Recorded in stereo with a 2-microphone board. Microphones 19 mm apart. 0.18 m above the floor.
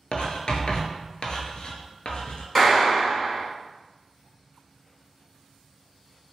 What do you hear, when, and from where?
0.1 s writing: 65° left (ahead or behind), 0.5 m
2.5 s a clap: 5° left (ahead or behind), 0.9 m